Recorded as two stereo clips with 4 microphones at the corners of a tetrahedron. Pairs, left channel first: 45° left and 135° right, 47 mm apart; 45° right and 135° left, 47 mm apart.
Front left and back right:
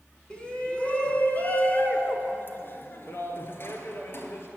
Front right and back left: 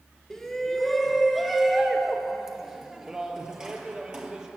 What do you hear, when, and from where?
0.3 s a shout: 20° left, 1.4 m; by 4.5 s 60° left, 3 m